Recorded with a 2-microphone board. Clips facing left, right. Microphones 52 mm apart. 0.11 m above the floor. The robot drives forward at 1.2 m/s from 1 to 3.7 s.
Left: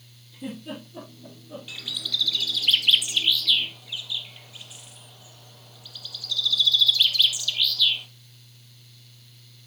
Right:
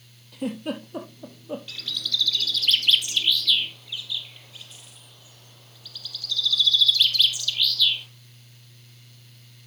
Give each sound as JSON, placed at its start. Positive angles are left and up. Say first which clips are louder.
{"t": 0.3, "sound": "a giggle", "louder": "right 6 dB", "side_deg": -60, "distance_m": 3.0}
{"t": 1.7, "sound": "a bird", "louder": "right 1 dB", "side_deg": 10, "distance_m": 1.4}